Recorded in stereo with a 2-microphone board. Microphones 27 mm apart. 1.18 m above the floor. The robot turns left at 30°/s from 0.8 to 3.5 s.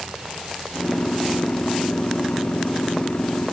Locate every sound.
Only background noise.